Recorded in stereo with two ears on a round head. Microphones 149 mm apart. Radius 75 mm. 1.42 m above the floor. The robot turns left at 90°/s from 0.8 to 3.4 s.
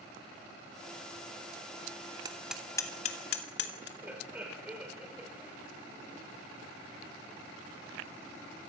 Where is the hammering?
25° right (ahead or behind), 2.5 m; by 3.9 s 75° left (ahead or behind), 2.5 m.